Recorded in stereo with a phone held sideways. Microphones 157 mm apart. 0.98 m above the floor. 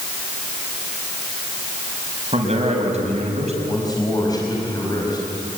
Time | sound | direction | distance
2.3 | a man speaking | 45° right (ahead or behind) | 5.5 m
3.6 | a man speaking | 25° left (ahead or behind) | 5.5 m